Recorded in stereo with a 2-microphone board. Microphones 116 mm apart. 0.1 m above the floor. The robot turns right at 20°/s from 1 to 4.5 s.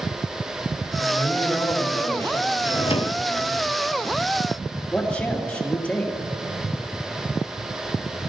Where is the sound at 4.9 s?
10° left (ahead or behind), 2.5 m.